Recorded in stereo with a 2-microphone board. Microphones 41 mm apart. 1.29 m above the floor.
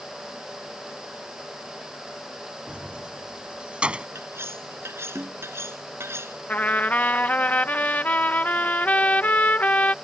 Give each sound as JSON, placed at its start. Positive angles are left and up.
{"t": 2.7, "sound": "keys jangling", "side_deg": -25}
{"t": 4.2, "sound": "cutlery clinking", "side_deg": -85}
{"t": 6.5, "sound": "a trumpet", "side_deg": 45}